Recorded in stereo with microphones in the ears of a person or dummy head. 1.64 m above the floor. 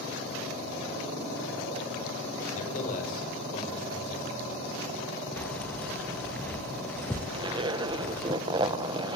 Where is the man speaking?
40° left (ahead or behind), 7 m; by 4.5 s 45° left (ahead or behind), 8 m.